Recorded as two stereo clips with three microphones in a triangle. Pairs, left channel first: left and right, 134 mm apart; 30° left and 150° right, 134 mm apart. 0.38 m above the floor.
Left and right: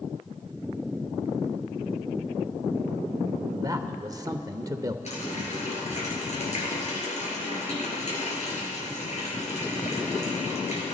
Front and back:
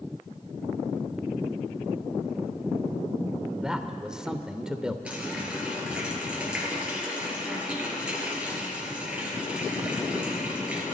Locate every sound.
3.5 s a man speaking: 70° right, 0.8 m
5.0 s a running tap: 125° left, 4 m